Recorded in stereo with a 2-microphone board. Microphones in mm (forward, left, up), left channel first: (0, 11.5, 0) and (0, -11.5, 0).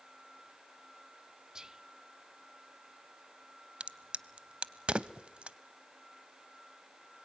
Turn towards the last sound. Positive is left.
turn(degrees=-60)  # may be behind; listen again after turning